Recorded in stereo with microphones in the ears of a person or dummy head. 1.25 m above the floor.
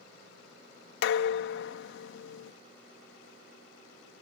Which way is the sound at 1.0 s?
80° left.